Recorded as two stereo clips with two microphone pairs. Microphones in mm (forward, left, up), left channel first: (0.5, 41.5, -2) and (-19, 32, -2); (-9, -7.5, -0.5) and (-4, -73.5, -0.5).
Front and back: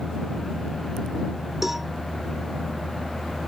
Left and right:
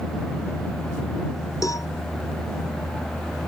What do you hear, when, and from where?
1.6 s a cowbell: 125° left